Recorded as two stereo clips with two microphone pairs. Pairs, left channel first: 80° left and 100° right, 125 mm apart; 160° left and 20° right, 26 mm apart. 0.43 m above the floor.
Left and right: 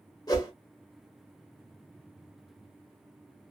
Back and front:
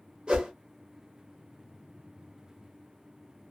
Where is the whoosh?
30° left, 0.9 m.